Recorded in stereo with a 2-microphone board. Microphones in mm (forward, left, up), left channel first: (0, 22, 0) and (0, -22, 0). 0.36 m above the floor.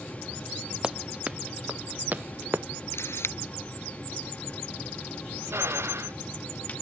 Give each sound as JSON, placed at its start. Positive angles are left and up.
{"t": 0.8, "sound": "running footsteps", "side_deg": -20}
{"t": 2.9, "sound": "a camera shutter", "side_deg": 85}
{"t": 5.5, "sound": "a drill", "side_deg": -80}